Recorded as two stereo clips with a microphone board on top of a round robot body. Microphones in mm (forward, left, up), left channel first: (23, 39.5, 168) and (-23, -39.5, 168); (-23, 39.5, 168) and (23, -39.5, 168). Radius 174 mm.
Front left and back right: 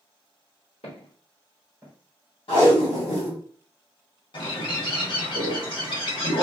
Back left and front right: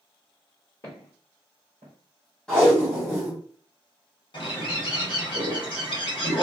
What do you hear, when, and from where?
0.8 s footsteps: 65° left, 1.3 m; by 1.9 s 65° right, 1.1 m
2.5 s tape being pulled: 35° left, 0.7 m
4.3 s a bird: 90° left, 1.2 m